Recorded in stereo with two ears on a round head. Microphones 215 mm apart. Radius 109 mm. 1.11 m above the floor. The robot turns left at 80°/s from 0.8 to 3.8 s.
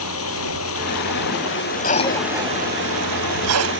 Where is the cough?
40° left (ahead or behind); by 3.7 s 70° right (ahead or behind).